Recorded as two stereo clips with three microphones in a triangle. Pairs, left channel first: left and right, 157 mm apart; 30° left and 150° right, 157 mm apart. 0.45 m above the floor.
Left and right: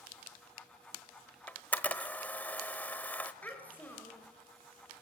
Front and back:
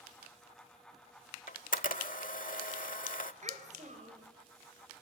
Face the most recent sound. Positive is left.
turn(degrees=170)